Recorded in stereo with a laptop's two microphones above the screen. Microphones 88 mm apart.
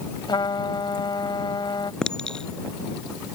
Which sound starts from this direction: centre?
A clink, at 2.0 s.